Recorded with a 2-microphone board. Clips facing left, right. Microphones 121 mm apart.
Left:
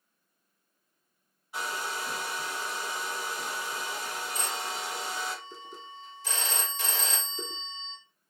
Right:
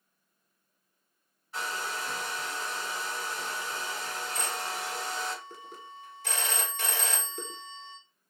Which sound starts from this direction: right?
A phone ringing, at 4.3 s.